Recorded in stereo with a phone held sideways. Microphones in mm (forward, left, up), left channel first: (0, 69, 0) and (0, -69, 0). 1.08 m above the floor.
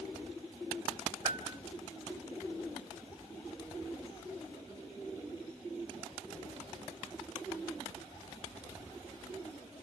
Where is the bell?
25° right (ahead or behind), 4 m.